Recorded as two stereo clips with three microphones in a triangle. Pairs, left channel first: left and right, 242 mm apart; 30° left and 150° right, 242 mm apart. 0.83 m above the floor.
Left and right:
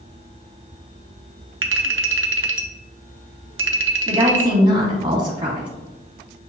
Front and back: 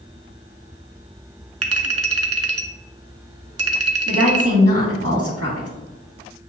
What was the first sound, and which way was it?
A clink, 130° right.